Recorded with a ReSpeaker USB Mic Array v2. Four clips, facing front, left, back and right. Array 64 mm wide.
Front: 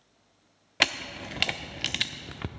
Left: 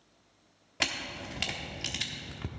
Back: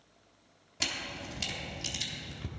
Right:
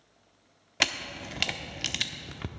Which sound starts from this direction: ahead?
A camera shutter, at 0.8 s.